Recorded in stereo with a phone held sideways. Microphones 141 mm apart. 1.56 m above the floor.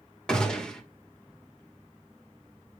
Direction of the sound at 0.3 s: 5° left (ahead or behind).